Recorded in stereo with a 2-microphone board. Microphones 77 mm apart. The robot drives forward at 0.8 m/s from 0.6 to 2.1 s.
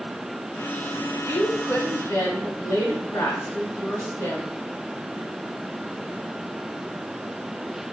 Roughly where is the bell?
No bell in this recording.